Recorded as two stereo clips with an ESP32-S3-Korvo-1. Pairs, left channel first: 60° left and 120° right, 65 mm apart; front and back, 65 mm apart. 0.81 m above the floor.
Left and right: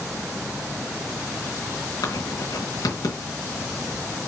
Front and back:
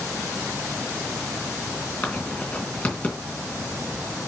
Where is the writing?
65° left, 2.5 m.